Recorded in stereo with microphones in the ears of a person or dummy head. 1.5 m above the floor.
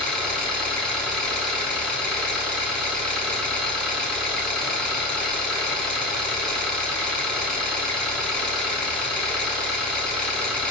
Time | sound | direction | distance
0.0 | an engine running | centre (ahead or behind) | 1.9 m